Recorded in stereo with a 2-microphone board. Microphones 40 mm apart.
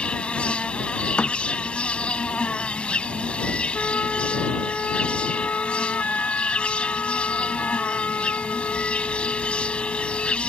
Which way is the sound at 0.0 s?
30° left (ahead or behind).